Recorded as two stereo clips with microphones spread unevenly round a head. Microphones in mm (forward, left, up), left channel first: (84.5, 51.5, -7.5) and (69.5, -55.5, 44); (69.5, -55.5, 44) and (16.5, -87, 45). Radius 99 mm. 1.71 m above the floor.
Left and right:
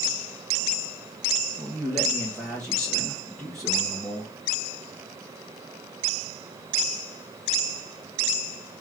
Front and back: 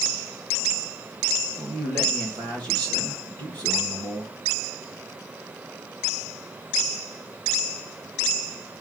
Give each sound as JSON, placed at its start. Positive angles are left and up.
{"t": 1.6, "sound": "a man speaking", "azimuth_deg": 180, "distance_m": 1.3}